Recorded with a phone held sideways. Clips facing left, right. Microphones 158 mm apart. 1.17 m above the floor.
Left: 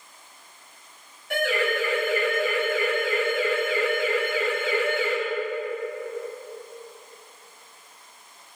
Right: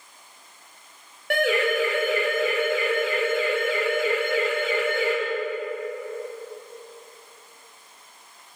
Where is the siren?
80° right, 8 m.